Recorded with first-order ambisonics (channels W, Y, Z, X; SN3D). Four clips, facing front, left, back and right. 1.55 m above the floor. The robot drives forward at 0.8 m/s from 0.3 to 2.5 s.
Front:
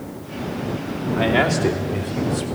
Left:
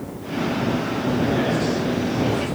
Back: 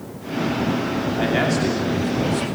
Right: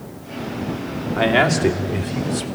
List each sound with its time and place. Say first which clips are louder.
1.2 s a man speaking: right 8 dB, front 3 dB; 80° right, 3 m; by 2.5 s 100° right, 3 m